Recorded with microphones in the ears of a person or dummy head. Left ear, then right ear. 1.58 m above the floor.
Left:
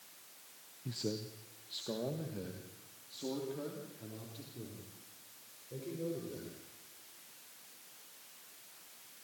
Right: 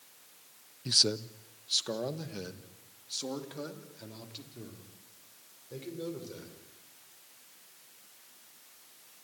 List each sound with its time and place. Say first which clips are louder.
0.8 s a man speaking: right 14 dB; 55° right (ahead or behind), 0.5 m; by 6.6 s 75° right (ahead or behind), 5.5 m